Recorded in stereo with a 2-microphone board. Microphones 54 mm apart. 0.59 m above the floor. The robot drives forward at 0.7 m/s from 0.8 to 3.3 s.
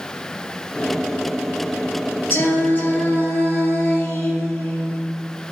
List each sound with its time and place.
2.3 s singing: 45° left (ahead or behind), 1.7 m; by 5.0 s 30° left (ahead or behind), 2.5 m